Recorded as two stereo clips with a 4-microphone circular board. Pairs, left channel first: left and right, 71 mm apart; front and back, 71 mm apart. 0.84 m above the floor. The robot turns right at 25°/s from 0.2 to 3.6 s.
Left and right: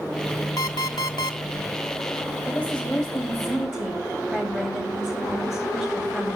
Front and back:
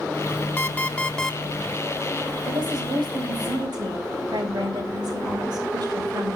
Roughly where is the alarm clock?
Ahead left.